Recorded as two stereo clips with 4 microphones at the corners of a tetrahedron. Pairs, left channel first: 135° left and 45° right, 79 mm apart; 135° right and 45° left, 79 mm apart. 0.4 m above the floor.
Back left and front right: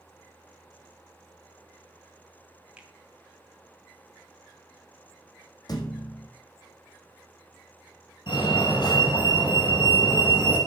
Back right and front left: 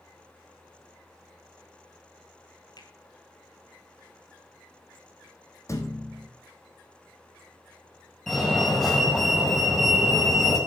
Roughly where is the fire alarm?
Behind left.